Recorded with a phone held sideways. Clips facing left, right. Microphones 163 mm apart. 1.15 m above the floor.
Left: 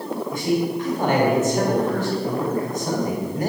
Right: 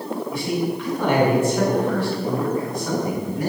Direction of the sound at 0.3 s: 45° left (ahead or behind).